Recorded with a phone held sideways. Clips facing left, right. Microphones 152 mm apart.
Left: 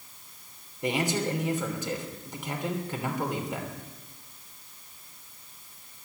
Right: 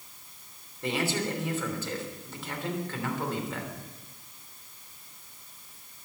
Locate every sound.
0.8 s a man speaking: 15° left (ahead or behind), 3 m